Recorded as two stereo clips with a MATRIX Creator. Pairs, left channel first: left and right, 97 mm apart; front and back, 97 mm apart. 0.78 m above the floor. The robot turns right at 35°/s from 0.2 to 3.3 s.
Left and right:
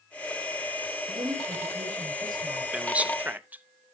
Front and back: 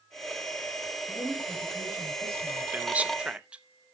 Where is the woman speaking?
85° right, 4 m; by 2.6 s 30° right, 4 m.